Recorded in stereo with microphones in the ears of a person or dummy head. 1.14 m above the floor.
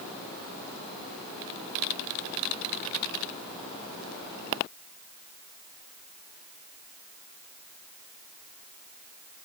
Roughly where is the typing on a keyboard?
No typing on a keyboard in this recording.